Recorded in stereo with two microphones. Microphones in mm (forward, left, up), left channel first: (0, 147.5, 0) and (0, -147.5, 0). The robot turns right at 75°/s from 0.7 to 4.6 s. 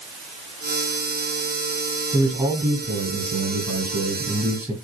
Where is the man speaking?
165° left, 7 m; by 4.7 s 10° right, 7 m.